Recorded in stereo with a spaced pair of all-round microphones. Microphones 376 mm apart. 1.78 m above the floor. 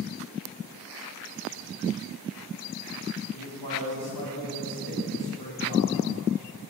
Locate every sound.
3.3 s a man speaking: 75° left (ahead or behind), 2.5 m